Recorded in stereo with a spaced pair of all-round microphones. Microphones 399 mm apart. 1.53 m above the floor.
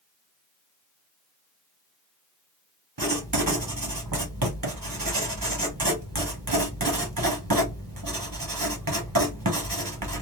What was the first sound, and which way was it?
Writing, 55° right (ahead or behind).